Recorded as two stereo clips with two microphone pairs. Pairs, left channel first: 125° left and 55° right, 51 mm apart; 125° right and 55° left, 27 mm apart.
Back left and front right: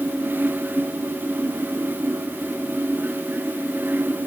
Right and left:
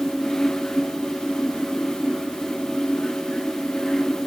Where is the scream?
I don't hear a scream.